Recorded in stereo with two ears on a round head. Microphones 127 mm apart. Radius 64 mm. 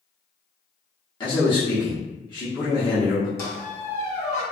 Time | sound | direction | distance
1.2 | a man speaking | 30° left (ahead or behind) | 0.8 m
3.4 | a squeak | 20° left (ahead or behind) | 0.8 m